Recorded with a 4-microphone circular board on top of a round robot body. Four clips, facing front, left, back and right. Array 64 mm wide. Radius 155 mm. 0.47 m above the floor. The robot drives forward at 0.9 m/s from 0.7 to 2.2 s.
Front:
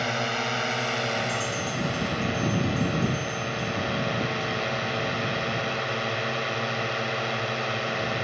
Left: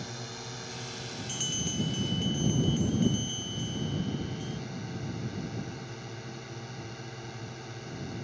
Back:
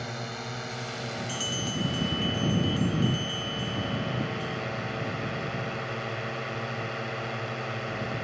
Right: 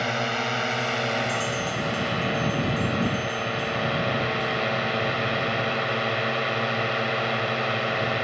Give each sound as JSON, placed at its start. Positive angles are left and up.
{"t": 0.0, "sound": "a drone", "azimuth_deg": -60}
{"t": 1.3, "sound": "a bell", "azimuth_deg": 155}